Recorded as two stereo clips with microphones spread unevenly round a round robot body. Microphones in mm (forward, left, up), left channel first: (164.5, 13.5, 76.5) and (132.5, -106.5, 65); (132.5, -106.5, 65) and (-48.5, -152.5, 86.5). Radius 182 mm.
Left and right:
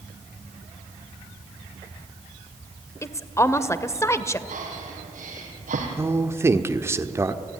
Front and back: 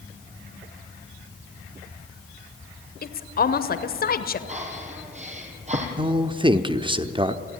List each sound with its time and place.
3.0 s a woman speaking: 5° left, 1.7 m
4.5 s breathing: 115° right, 4 m
6.0 s a man speaking: 120° right, 1.0 m